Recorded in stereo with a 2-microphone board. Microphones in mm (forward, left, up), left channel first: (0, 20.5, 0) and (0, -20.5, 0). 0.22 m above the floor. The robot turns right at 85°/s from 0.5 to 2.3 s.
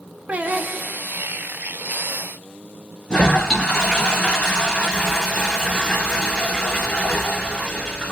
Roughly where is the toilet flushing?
Left.